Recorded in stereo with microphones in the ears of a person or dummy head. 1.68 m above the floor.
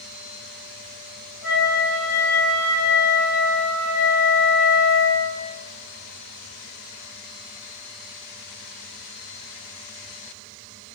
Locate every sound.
1.4 s a flute: 10° left (ahead or behind), 3.5 m